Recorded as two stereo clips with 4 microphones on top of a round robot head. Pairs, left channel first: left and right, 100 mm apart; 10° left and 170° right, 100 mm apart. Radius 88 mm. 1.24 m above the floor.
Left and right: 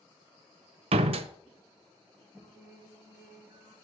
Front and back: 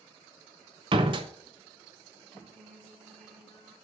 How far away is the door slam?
About 0.6 m.